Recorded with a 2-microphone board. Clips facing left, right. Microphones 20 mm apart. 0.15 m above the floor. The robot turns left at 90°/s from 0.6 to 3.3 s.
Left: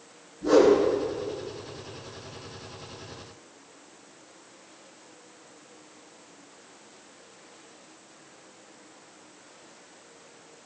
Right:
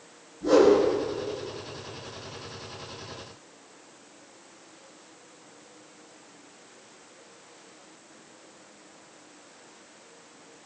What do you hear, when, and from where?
0.4 s a whoosh: centre (ahead or behind), 6 m; by 0.8 s 15° right (ahead or behind), 6 m